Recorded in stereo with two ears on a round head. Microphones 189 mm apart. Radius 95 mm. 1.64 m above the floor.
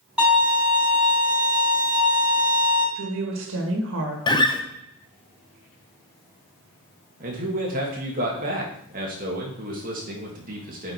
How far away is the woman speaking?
About 1.8 m.